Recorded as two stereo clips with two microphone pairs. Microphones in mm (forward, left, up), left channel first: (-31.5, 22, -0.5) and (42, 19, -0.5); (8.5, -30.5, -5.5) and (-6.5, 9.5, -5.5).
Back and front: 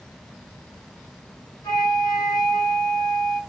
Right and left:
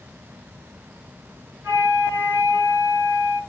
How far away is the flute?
About 8 m.